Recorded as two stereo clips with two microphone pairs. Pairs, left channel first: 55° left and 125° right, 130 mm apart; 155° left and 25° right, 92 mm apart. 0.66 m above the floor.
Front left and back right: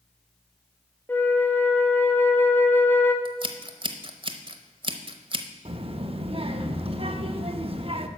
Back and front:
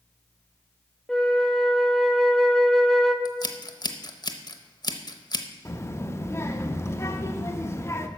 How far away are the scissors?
About 0.8 m.